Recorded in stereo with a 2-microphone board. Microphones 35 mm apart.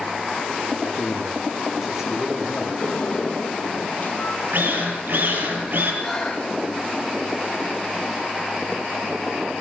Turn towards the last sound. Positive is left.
turn(degrees=0)  # may be behind; listen again after turning